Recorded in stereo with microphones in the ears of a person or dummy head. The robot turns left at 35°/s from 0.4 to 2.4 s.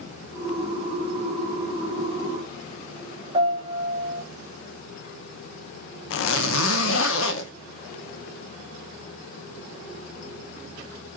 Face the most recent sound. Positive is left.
turn(degrees=75)  # may be behind; listen again after turning